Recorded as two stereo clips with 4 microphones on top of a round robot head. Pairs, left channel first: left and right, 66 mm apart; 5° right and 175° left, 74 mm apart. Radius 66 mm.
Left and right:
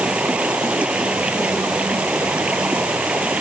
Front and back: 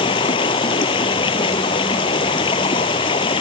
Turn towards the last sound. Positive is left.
turn(degrees=-10)